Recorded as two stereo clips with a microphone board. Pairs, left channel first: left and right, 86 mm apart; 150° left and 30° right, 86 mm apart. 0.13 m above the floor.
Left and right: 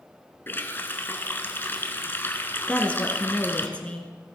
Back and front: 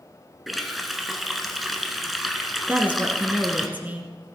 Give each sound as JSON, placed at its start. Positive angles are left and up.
{"t": 0.5, "sound": "a running tap", "azimuth_deg": 60, "distance_m": 0.9}
{"t": 2.7, "sound": "a woman speaking", "azimuth_deg": 25, "distance_m": 1.2}